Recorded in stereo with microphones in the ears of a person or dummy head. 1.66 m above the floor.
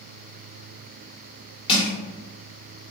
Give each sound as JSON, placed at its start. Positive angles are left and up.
{"t": 1.7, "sound": "crushing", "side_deg": 30, "distance_m": 1.6}